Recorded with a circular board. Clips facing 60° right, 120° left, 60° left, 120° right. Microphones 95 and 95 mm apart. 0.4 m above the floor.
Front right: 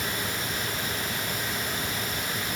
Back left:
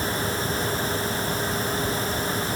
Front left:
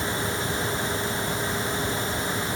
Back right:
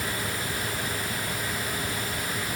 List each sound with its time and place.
Only background noise.